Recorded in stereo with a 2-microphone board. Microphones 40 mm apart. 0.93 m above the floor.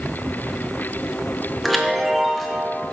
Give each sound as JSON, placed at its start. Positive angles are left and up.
{"t": 1.6, "sound": "a chime", "side_deg": 0, "distance_m": 0.7}